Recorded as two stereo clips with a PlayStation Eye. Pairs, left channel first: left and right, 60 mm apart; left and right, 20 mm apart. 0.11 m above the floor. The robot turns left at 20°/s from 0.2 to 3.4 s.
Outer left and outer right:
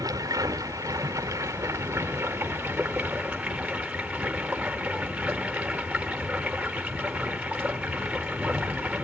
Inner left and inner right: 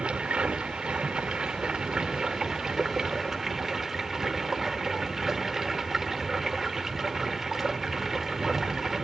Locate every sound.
0.0 s running water: 95° right, 1.3 m; by 9.1 s 155° right, 1.3 m